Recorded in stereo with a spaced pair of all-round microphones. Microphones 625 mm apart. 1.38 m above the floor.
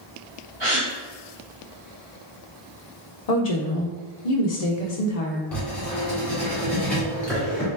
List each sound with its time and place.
0.6 s a gasp: 45° right (ahead or behind), 1.6 m
3.3 s a woman speaking: 75° left (ahead or behind), 0.9 m
5.5 s writing: centre (ahead or behind), 1.8 m